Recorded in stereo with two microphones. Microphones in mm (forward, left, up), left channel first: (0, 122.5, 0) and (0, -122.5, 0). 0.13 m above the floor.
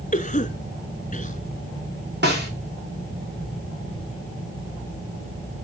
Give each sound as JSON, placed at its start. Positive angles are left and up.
{"t": 0.1, "sound": "a cough", "side_deg": 30, "distance_m": 1.3}
{"t": 2.2, "sound": "a snare drum", "side_deg": -45, "distance_m": 8.0}